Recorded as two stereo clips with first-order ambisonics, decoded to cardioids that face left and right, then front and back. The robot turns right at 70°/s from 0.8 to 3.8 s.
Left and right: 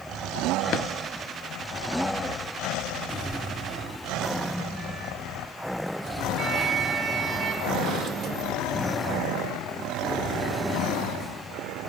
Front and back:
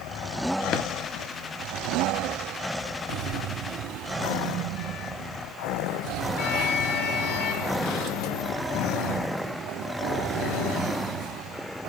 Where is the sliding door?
65° right, 0.9 m; by 8.5 s 30° right, 0.9 m.